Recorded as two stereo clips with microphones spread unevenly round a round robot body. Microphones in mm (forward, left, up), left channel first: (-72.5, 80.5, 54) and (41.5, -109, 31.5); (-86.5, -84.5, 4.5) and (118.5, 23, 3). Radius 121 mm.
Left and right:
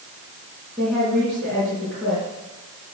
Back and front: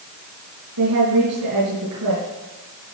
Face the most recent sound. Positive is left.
turn(degrees=40)